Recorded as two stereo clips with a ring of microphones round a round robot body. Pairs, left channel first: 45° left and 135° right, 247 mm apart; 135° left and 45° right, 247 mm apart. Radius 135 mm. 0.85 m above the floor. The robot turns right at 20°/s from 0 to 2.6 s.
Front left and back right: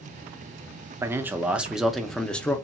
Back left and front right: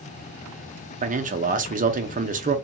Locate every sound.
1.0 s a man speaking: 65° right, 0.6 m; by 2.5 s 35° right, 0.6 m